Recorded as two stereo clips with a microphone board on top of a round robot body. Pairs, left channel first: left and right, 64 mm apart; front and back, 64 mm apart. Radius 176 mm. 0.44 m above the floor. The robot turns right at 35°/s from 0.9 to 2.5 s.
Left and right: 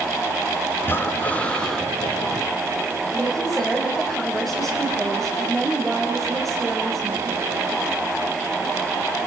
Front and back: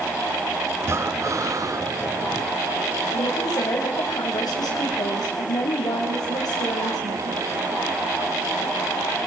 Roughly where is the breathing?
Behind left.